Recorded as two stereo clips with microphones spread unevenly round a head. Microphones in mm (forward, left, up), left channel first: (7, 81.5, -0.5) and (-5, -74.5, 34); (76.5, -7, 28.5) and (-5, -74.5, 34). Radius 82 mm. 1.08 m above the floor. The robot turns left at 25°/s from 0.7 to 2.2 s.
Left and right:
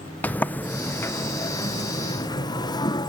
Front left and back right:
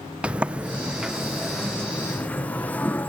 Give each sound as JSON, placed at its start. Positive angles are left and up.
{"t": 0.2, "sound": "a sliding door", "azimuth_deg": 140, "distance_m": 0.9}